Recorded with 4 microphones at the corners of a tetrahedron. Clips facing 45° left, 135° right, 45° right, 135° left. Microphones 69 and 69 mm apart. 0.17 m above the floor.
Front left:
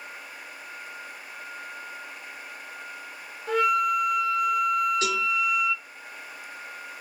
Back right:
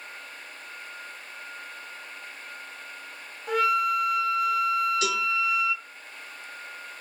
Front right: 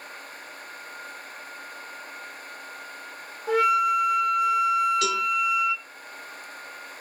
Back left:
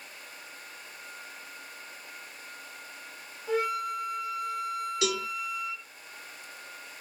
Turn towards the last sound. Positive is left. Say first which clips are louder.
# front left 1 dB, front right 5 dB
turn(degrees=70)